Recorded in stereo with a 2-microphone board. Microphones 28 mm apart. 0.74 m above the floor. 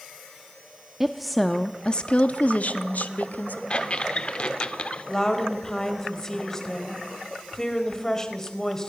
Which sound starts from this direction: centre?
A woman speaking, at 1.0 s.